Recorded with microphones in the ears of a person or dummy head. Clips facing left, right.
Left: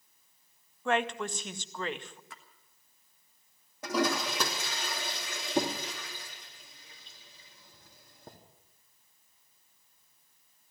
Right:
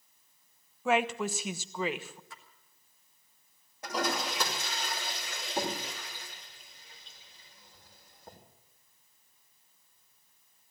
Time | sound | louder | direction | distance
0.8 | a woman speaking | right 2 dB | 5° right (ahead or behind) | 0.6 m
2.3 | a splash | even | 55° left (ahead or behind) | 1.5 m
3.8 | a toilet flushing | left 3 dB | 85° left | 3 m